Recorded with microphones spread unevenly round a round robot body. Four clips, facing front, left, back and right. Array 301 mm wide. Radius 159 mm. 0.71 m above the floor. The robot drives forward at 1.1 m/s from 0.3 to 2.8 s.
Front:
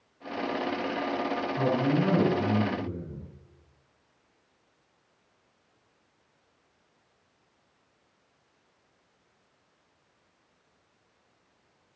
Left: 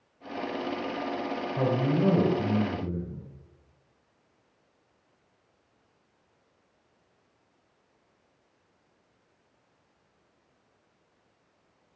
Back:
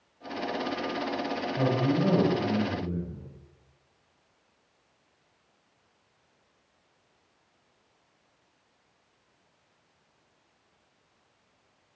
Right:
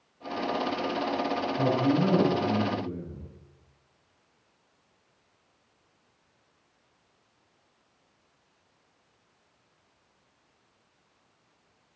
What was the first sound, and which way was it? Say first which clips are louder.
A man speaking: right 1 dB, even; 110° left.